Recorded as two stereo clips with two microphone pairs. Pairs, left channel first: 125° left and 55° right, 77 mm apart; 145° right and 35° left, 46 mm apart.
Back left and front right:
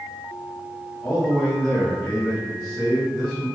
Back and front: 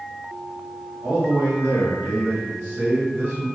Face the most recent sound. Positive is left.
turn(degrees=5)